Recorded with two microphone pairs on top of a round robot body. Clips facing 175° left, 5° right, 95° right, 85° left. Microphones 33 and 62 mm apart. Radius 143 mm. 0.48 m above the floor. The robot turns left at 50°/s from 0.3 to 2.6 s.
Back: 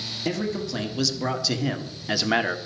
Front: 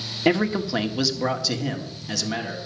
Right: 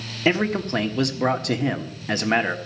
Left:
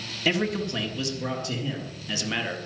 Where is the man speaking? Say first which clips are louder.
Front 7 dB, right 4 dB; 40° right, 1.6 m; by 2.6 s 150° right, 1.6 m.